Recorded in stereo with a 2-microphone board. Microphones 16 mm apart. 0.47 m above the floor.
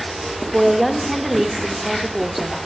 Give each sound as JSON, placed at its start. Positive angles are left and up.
{"t": 0.5, "sound": "a woman speaking", "side_deg": -5, "distance_m": 1.2}